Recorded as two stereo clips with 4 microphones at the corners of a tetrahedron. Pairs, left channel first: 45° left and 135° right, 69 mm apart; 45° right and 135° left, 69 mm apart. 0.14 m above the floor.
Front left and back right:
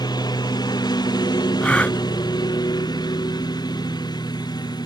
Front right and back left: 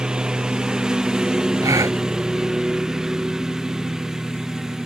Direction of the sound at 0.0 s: 55° left.